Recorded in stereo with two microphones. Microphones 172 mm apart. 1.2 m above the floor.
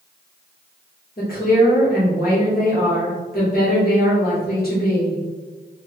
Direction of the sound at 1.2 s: 60° left (ahead or behind).